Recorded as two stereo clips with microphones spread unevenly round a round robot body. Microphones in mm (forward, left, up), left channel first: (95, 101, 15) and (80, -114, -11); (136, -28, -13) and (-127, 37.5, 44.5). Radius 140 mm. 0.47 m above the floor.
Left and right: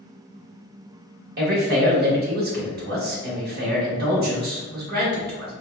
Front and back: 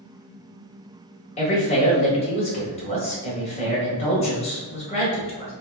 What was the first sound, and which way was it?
A man speaking, 70° right.